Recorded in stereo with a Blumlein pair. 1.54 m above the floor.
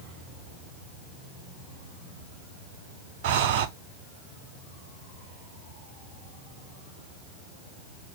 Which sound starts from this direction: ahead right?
Breathing, at 3.2 s.